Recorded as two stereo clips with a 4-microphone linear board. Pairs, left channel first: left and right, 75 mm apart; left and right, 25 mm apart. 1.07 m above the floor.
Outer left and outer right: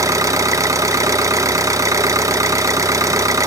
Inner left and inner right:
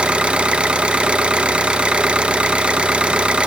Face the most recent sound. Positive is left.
turn(degrees=-45)  # may be behind; listen again after turning